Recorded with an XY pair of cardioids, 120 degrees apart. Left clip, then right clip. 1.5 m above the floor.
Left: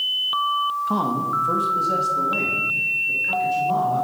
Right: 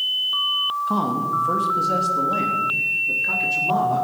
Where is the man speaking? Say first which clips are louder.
Even; 5° left, 2.5 m; by 4.0 s 40° right, 5 m.